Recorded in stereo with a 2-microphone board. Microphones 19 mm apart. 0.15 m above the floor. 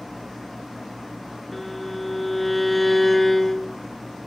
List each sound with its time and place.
1.5 s a violin: 10° left (ahead or behind)